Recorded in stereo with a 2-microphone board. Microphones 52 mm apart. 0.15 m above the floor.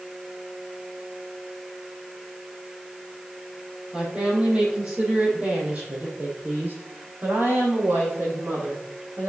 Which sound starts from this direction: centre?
A woman speaking, at 3.9 s.